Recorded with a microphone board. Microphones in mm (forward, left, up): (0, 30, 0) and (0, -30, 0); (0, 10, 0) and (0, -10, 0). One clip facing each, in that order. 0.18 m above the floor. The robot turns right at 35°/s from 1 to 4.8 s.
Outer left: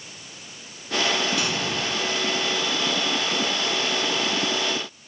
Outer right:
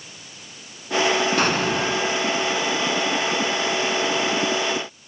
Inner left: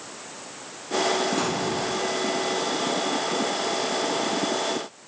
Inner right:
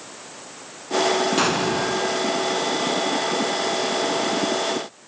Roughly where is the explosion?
Right.